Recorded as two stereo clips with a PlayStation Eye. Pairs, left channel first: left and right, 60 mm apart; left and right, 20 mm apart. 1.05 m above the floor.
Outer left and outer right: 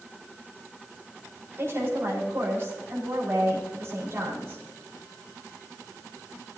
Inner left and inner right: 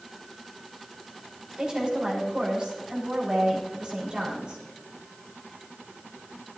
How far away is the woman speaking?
About 4.5 m.